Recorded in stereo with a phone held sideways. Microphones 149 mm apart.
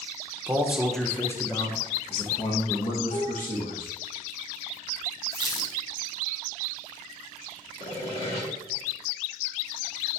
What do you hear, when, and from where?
0.5 s a man speaking: 15° right (ahead or behind), 0.9 m; by 3.9 s 65° left (ahead or behind), 1.9 m
3.1 s dishes clattering: 85° left, 3 m
5.3 s a squeak: 30° right (ahead or behind), 1.0 m
7.8 s sawing: 45° left (ahead or behind), 3 m